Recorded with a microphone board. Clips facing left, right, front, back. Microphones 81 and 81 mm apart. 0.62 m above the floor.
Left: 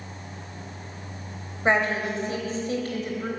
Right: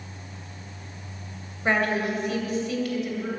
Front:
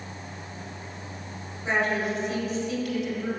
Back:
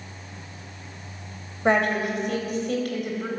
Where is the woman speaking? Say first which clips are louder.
Left 1 dB, back 4 dB; 160° left, 3 m; by 3.3 s 140° left, 3.5 m.